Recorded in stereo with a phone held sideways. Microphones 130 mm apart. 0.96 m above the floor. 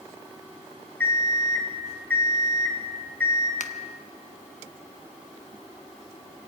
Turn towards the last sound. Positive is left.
turn(degrees=65)  # may be behind; listen again after turning